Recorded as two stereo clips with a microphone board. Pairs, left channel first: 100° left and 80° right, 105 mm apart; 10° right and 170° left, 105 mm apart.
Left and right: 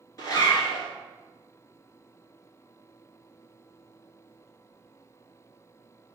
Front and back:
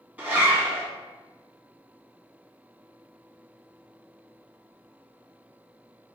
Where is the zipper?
105° left, 1.5 m.